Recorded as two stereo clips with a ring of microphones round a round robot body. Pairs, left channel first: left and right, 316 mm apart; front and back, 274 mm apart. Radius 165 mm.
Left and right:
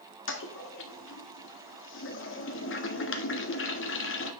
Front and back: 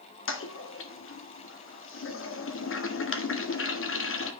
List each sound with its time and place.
0.3 s a toilet flushing: 40° left, 1.9 m